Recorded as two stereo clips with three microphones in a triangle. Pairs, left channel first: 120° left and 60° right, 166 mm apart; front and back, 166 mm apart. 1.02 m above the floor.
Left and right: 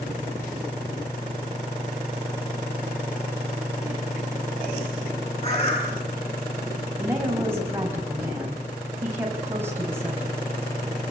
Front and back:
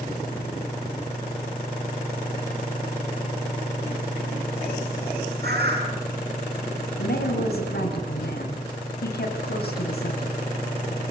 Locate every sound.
5.4 s a bird: 170° left, 9 m
7.0 s a woman speaking: 15° left, 5 m